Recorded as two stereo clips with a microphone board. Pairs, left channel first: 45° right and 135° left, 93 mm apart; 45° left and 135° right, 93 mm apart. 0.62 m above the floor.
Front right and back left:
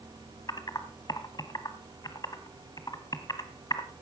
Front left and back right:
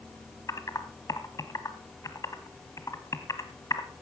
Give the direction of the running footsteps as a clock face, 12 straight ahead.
No running footsteps in this recording.